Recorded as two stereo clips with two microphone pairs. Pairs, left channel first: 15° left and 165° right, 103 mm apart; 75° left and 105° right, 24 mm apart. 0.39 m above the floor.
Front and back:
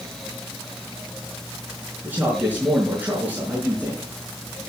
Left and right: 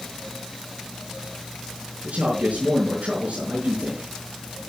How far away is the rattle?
I don't hear a rattle.